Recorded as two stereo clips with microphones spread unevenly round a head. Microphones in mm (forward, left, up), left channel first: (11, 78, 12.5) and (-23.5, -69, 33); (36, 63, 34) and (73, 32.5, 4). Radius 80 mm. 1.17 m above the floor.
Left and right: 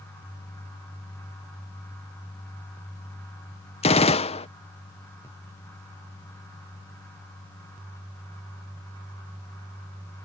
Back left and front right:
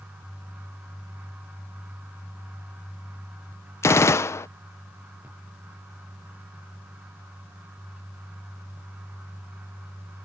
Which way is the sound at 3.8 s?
95° left.